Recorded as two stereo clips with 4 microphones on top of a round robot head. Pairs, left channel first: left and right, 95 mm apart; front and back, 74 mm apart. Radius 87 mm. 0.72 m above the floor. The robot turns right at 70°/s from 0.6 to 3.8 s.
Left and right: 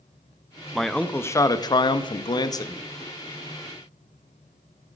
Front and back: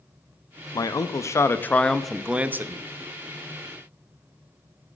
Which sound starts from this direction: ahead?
A man speaking, at 0.7 s.